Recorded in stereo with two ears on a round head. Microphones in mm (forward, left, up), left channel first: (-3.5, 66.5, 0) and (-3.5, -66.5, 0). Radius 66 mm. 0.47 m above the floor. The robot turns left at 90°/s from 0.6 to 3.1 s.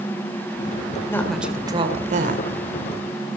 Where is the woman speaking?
20° left, 2 m; by 2.4 s 100° right, 2 m.